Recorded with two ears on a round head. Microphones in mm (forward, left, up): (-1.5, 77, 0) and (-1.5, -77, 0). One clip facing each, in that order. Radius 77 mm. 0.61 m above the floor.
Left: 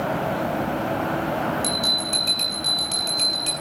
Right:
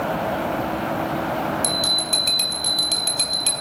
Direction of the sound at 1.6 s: 10° right (ahead or behind).